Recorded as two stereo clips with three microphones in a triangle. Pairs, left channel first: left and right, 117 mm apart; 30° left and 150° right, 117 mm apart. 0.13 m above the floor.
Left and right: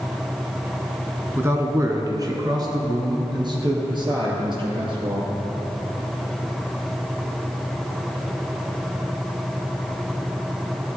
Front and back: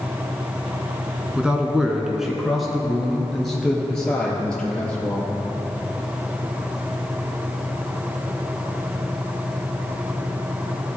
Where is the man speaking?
90° right, 1.2 m; by 5.3 s 50° right, 3 m.